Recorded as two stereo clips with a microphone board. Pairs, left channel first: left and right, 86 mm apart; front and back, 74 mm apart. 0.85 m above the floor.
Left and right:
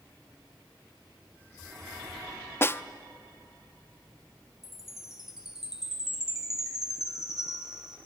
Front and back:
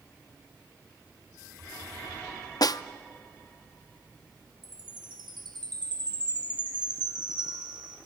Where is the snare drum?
30° left, 0.5 m.